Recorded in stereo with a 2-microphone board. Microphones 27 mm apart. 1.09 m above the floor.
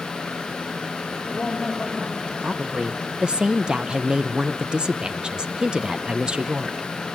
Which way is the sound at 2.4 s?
30° right (ahead or behind).